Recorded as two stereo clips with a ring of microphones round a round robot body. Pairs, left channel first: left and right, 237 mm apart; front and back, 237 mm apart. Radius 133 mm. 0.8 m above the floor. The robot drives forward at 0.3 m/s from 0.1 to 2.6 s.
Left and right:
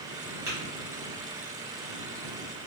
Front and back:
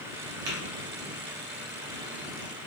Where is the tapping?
165° right, 1.0 m; by 0.6 s 170° right, 1.0 m.